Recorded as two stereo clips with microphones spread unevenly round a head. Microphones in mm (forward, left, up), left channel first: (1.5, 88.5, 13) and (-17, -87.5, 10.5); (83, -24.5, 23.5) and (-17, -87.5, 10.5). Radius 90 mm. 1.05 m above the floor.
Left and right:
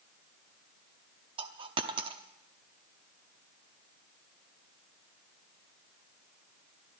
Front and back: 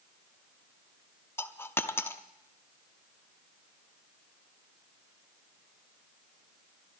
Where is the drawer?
I don't hear a drawer.